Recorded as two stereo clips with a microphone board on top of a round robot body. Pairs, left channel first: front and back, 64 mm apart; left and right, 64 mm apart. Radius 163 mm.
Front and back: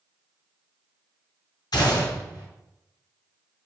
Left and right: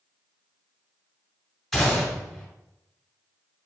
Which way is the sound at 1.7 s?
Straight ahead.